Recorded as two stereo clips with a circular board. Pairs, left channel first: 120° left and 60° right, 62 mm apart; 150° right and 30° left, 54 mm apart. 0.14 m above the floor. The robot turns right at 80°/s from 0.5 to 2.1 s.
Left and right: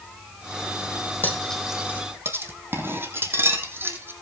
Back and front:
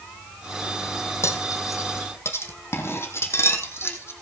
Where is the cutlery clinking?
Straight behind, 3.5 m; by 4.1 s 110° right, 3.5 m.